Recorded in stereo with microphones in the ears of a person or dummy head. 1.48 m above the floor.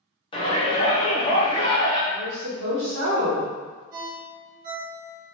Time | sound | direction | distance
0.3 | a shout | 25° left (ahead or behind) | 0.9 m
2.1 | a woman speaking | 75° right (ahead or behind) | 1.0 m
3.9 | a ringtone | 50° right (ahead or behind) | 1.0 m